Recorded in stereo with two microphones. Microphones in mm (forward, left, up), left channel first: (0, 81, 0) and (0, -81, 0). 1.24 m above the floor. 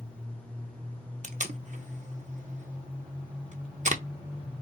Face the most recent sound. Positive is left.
turn(degrees=-55)  # may be behind; listen again after turning